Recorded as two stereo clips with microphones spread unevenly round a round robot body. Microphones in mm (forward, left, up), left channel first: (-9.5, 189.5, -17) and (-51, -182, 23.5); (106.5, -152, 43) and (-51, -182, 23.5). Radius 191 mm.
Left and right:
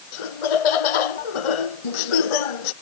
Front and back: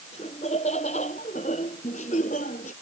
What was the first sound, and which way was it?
Laughter, 85° left.